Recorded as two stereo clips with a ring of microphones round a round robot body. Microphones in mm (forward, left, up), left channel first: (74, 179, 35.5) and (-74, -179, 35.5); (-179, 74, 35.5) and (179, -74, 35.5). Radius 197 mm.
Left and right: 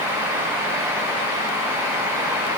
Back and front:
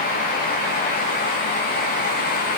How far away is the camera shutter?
No camera shutter in this recording.